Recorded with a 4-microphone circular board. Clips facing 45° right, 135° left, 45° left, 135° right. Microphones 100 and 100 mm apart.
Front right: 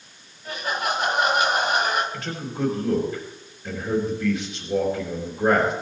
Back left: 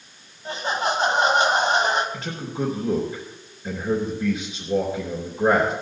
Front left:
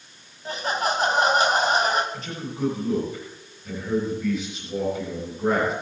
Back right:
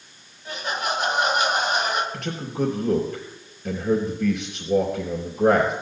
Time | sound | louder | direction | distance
0.5 | laughter | back left 2 dB, front left 2 dB | 85° left | 1.9 m
2.1 | a man speaking | back left 1 dB, back right 4 dB | 155° right | 3.5 m